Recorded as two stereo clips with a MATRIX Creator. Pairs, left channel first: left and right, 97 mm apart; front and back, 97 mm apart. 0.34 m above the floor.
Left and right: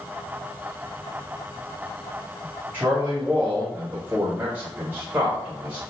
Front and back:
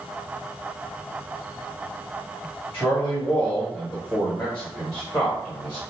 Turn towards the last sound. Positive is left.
turn(degrees=-55)